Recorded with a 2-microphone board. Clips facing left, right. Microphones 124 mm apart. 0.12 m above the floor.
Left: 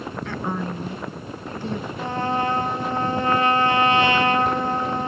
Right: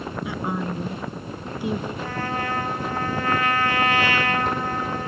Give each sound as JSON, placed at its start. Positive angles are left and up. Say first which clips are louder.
{"t": 0.2, "sound": "a woman speaking", "louder": "even", "side_deg": -10, "distance_m": 1.7}
{"t": 2.0, "sound": "a trumpet", "louder": "left 4 dB", "side_deg": 25, "distance_m": 1.5}